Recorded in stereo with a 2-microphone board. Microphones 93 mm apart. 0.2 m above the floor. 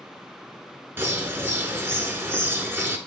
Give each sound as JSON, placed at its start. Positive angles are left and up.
{"t": 1.0, "sound": "a bird", "side_deg": -25, "distance_m": 0.9}